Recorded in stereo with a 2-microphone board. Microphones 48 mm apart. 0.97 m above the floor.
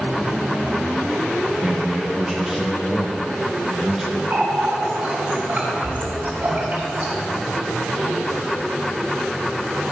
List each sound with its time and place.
1.5 s a man speaking: 5° right (ahead or behind), 0.6 m
4.3 s a running tap: 40° right (ahead or behind), 1.6 m